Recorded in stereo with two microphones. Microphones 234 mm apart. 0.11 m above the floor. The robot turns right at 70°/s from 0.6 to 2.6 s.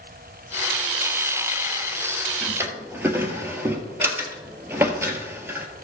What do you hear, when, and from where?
2.4 s a drawer: centre (ahead or behind), 1.4 m; by 5.7 s 10° right (ahead or behind), 1.4 m